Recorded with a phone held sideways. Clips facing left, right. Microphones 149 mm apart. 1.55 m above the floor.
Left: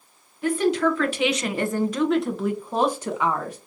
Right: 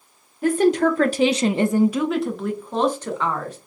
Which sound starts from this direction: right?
A woman speaking, at 0.4 s.